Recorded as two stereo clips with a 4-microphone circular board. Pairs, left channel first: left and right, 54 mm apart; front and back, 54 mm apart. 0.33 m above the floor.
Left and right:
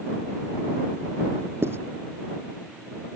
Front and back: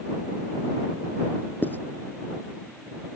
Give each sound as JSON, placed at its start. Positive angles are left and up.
{"t": 1.6, "sound": "writing", "azimuth_deg": -50}